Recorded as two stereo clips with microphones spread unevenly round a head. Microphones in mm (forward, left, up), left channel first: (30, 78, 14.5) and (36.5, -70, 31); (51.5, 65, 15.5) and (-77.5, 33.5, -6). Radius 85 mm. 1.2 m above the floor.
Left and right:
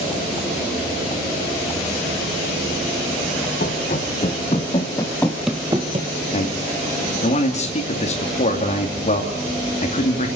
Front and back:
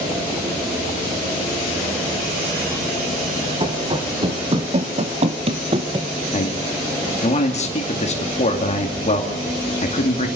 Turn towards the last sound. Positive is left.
turn(degrees=55)